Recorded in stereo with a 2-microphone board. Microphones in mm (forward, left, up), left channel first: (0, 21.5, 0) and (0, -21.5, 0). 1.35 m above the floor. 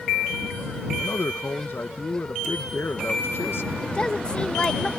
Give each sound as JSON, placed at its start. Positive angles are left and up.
{"t": 1.0, "sound": "a man speaking", "side_deg": 60}
{"t": 3.8, "sound": "a woman speaking", "side_deg": 20}